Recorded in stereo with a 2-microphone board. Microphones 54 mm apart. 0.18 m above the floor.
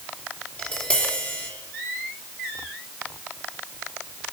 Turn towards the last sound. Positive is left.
turn(degrees=25)  # may be behind; listen again after turning